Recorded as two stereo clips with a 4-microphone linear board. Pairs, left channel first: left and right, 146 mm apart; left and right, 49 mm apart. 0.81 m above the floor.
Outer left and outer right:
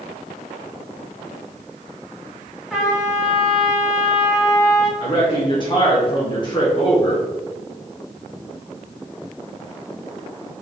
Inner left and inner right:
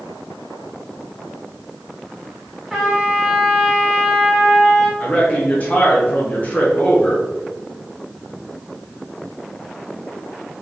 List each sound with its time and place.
2.7 s a trumpet: 5° right (ahead or behind), 1.6 m
5.0 s a man speaking: 35° left (ahead or behind), 1.1 m